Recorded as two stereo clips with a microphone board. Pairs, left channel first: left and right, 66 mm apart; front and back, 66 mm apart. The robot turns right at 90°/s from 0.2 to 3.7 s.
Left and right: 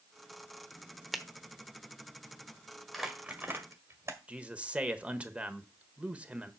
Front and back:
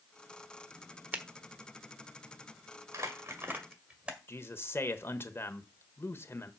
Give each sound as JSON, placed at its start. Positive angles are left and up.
{"t": 1.1, "sound": "a finger snap", "azimuth_deg": -175, "distance_m": 1.0}
{"t": 2.9, "sound": "crumpling", "azimuth_deg": 180, "distance_m": 1.7}
{"t": 4.3, "sound": "a man speaking", "azimuth_deg": -25, "distance_m": 1.1}